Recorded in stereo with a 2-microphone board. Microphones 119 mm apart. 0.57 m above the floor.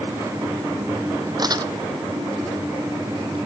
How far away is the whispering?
I don't hear whispering.